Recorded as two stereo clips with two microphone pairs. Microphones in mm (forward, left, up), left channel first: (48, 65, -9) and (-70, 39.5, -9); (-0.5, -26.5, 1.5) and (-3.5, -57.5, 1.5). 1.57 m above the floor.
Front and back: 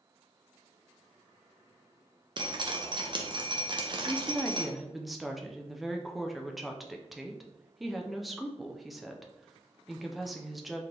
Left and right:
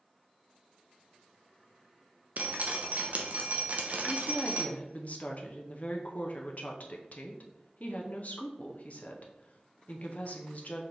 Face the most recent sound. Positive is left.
turn(degrees=100)